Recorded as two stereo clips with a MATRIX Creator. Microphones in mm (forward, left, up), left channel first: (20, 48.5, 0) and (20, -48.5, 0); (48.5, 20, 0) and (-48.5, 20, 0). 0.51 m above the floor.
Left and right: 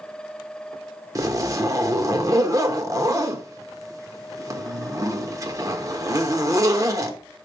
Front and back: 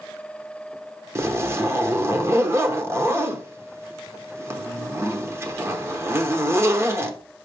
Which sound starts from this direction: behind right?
A zipper, at 1.1 s.